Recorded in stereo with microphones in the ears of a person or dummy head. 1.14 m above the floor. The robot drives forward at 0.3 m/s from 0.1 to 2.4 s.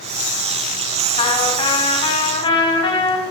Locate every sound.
1.2 s a trumpet: 30° left (ahead or behind), 3.5 m; by 3.2 s 25° left (ahead or behind), 4 m